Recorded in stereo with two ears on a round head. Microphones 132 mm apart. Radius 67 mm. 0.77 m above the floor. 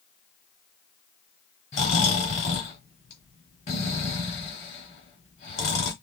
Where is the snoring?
45° left (ahead or behind), 3 m.